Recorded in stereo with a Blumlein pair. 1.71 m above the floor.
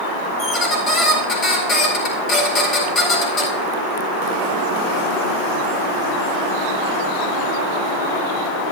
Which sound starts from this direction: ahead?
A squeak, at 0.4 s.